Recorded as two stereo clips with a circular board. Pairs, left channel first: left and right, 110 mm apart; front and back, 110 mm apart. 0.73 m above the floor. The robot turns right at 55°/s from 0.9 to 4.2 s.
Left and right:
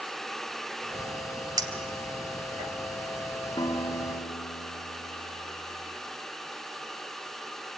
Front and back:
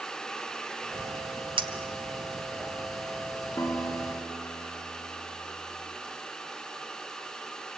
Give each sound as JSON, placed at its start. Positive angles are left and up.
{"t": 1.6, "sound": "a clink", "azimuth_deg": -145, "distance_m": 2.0}
{"t": 3.6, "sound": "a guitar", "azimuth_deg": 60, "distance_m": 1.3}